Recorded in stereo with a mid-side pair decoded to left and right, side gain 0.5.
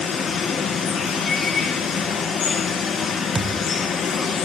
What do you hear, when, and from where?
0.0 s running water: 50° left, 7 m
3.4 s a thud: 25° right, 2 m